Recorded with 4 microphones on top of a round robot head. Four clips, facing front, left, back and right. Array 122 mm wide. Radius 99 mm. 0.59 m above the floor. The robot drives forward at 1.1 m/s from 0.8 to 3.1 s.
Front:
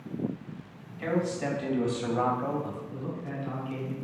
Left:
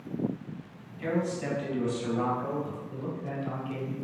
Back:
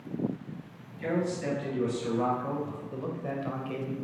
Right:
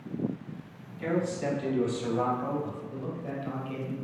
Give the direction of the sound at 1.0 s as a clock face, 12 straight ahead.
12 o'clock.